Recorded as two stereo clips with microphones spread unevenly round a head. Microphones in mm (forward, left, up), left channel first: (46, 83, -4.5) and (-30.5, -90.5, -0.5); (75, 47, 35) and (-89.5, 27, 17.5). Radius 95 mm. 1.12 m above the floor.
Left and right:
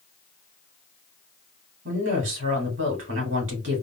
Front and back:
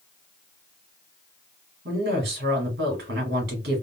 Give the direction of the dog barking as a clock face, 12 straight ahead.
No dog barking in this recording.